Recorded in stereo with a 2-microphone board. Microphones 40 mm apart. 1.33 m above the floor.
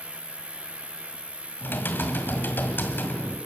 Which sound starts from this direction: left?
Typing on a keyboard, at 1.6 s.